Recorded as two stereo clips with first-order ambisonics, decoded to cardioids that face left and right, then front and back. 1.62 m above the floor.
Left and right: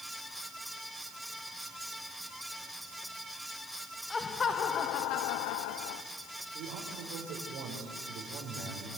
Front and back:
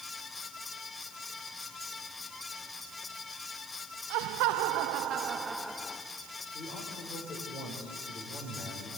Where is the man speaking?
60° right, 5 m.